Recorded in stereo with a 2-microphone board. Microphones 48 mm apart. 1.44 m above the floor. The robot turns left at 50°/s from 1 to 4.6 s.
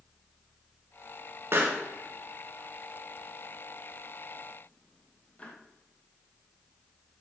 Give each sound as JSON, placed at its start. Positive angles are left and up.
{"t": 1.5, "sound": "a pop", "side_deg": -55, "distance_m": 1.7}